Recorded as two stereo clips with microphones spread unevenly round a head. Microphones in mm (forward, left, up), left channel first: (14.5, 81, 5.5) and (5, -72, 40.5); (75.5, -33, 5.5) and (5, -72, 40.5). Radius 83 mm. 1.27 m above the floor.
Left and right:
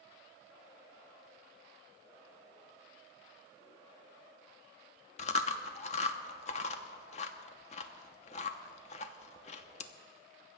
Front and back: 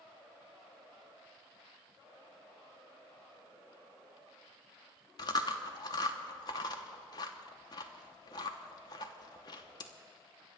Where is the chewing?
80° left, 0.7 m.